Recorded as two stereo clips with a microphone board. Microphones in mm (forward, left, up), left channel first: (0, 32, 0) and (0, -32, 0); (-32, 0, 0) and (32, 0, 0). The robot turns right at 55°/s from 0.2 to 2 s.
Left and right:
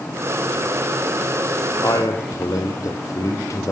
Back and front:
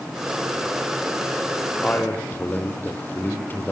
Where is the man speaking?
110° left, 3.5 m; by 3.7 s 120° left, 3.5 m.